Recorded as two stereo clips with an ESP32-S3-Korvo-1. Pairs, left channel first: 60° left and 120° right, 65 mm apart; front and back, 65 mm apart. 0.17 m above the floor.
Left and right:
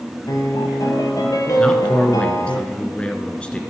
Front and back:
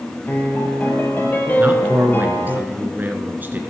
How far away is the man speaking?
About 1.9 m.